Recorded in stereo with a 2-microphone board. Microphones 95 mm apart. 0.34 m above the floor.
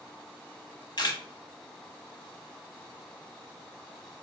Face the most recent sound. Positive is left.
turn(degrees=50)  # may be behind; listen again after turning